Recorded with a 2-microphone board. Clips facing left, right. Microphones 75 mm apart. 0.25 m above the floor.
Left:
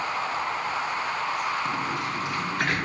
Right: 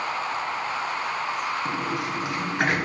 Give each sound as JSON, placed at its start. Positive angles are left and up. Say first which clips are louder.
{"t": 1.6, "sound": "a sliding door", "louder": "right 1 dB", "side_deg": -20, "distance_m": 3.5}